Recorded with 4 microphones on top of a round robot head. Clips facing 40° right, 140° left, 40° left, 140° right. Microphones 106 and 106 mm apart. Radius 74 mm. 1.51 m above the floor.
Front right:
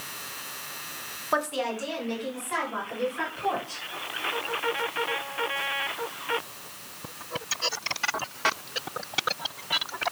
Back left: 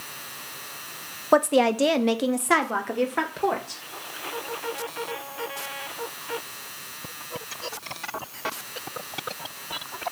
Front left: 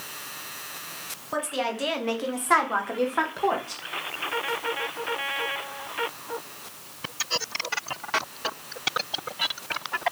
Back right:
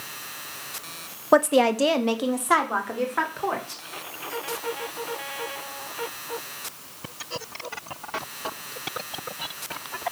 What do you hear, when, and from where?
1.3 s a woman speaking: 170° right, 0.9 m; by 3.8 s 115° left, 2 m